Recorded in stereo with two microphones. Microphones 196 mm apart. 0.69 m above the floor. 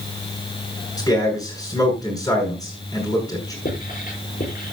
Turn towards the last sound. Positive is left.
turn(degrees=45)  # may be behind; listen again after turning